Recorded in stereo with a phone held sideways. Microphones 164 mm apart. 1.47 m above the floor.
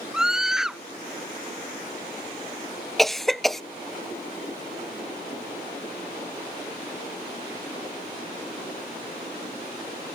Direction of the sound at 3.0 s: Centre (ahead or behind).